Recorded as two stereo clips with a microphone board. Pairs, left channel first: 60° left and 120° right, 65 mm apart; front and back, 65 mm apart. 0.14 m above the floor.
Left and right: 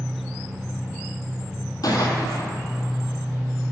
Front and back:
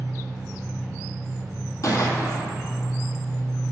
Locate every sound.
0.0 s an engine running: 15° right, 1.6 m
1.8 s a gunshot: 35° left, 1.0 m